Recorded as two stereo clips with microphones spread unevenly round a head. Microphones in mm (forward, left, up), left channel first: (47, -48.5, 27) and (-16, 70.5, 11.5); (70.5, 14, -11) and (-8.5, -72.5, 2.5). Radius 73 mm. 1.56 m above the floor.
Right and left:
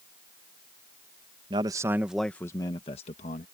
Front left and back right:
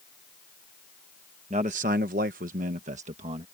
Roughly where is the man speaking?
Behind.